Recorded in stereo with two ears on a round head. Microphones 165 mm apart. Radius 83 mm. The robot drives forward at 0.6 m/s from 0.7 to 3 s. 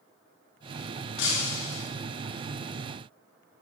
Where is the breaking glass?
65° left (ahead or behind), 2.5 m; by 1.9 s 70° left (ahead or behind), 2.5 m.